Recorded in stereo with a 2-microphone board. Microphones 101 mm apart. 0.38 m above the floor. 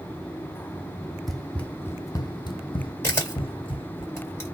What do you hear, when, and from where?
1.3 s running footsteps: centre (ahead or behind), 0.7 m; by 4.0 s 55° left (ahead or behind), 1.2 m
3.0 s a camera shutter: 25° left (ahead or behind), 1.7 m